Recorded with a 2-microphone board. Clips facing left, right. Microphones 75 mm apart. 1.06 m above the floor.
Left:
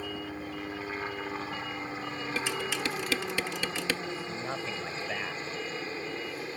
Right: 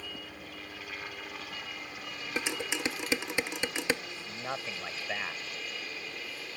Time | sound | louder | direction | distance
0.0 | a helicopter | left 8 dB | 35° left (ahead or behind) | ?
2.4 | dishes clattering | even | 20° right (ahead or behind) | ?
4.2 | a man speaking | left 3 dB | 5° right (ahead or behind) | ?